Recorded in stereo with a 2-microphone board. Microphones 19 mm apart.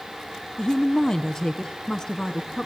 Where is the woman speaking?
45° left (ahead or behind), 3 m; by 2.7 s 35° left (ahead or behind), 4 m.